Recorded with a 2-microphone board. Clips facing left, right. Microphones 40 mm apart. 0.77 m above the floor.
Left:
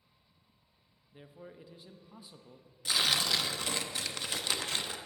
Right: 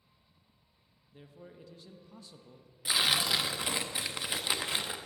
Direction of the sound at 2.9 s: 15° right (ahead or behind).